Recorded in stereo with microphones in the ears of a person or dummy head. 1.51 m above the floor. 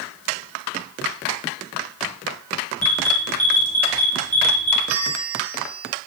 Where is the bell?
75° right (ahead or behind), 4 m.